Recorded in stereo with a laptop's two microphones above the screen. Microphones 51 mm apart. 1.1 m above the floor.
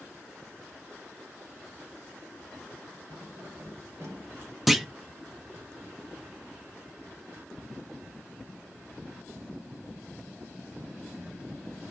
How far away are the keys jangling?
About 3 m.